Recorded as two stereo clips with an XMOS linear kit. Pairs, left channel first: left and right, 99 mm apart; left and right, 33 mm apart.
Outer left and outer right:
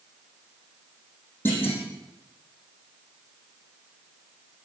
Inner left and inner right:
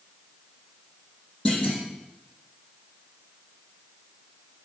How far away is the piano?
No piano in this recording.